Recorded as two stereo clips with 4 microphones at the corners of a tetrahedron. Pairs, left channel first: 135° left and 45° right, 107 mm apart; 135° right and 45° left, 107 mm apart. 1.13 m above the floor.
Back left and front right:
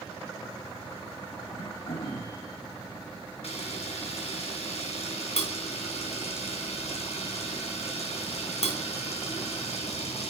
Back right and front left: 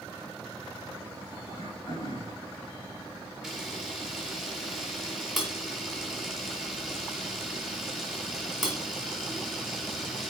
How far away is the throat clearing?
About 8 m.